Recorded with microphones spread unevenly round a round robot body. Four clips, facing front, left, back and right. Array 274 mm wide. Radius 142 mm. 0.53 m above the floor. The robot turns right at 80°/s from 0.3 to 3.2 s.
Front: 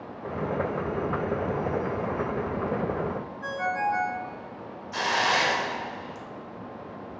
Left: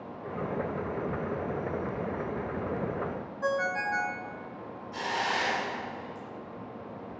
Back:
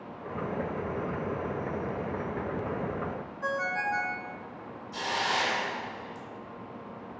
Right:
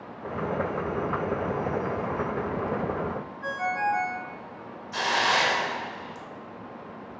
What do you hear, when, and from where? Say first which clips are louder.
3.4 s a ringtone: right 2 dB, front 3 dB; 85° left, 0.6 m
4.9 s a hiss: right 6 dB, front 5 dB; 60° right, 0.6 m